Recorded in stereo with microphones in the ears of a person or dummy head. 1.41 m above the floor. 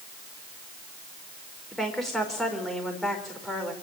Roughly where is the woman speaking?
Centre.